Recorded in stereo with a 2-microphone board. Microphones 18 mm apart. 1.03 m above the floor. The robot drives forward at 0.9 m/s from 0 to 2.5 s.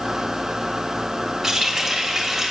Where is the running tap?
15° right (ahead or behind), 2 m; by 2.5 s 10° right (ahead or behind), 3 m.